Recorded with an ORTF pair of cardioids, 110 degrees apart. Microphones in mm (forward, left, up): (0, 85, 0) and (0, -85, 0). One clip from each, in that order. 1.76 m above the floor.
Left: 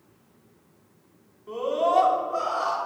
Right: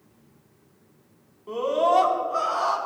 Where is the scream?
15° right, 5 m.